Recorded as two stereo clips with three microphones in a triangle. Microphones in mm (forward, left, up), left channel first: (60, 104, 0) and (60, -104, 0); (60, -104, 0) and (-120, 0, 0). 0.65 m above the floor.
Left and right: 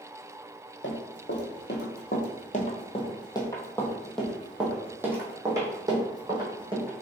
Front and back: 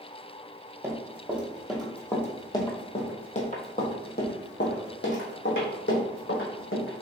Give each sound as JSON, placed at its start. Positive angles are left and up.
{"t": 0.8, "sound": "running footsteps", "azimuth_deg": 75, "distance_m": 1.6}